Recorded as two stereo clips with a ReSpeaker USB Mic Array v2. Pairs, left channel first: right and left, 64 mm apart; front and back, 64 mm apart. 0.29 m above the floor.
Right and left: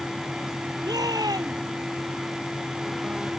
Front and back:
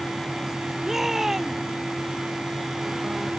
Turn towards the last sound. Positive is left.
turn(degrees=95)